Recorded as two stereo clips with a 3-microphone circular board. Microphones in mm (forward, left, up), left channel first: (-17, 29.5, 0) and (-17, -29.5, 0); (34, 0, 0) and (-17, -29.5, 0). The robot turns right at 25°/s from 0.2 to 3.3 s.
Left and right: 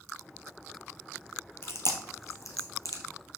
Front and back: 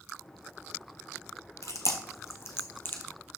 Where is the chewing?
50° left, 1.4 m; by 3.0 s 85° left, 1.4 m.